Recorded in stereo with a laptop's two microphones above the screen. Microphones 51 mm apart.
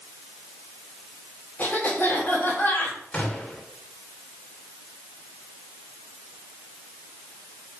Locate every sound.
1.6 s a cough: 40° left (ahead or behind), 3 m
3.1 s a gunshot: 25° left (ahead or behind), 2 m